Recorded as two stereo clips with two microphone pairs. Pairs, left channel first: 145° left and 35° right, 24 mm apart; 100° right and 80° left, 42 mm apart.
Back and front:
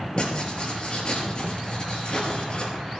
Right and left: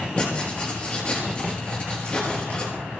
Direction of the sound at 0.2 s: 160° right.